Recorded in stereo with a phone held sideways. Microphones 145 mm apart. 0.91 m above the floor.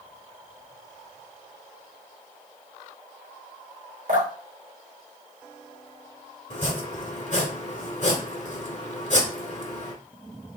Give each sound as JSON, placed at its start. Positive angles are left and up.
{"t": 4.1, "sound": "dripping", "side_deg": -80, "distance_m": 2.5}
{"t": 6.5, "sound": "chopping", "side_deg": 55, "distance_m": 1.5}